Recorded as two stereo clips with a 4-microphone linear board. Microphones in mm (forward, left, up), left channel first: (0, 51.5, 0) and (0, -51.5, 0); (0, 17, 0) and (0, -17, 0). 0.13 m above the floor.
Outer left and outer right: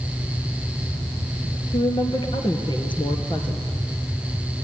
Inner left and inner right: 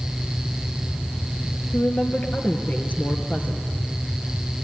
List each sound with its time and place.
1.7 s a woman speaking: 50° left (ahead or behind), 3 m